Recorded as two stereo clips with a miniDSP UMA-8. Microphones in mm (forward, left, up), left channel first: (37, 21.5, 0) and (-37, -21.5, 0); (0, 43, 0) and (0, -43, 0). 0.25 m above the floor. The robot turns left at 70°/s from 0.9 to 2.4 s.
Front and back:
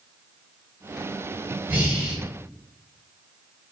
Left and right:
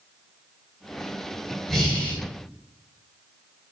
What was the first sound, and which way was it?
Breathing, 175° left.